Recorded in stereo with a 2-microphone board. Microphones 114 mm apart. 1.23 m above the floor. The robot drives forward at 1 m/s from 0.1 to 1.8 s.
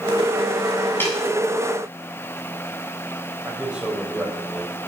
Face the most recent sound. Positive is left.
turn(degrees=-10)  # may be behind; listen again after turning